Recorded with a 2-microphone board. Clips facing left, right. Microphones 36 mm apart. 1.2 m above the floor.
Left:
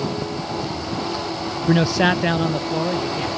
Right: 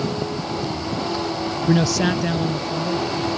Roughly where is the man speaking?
Centre.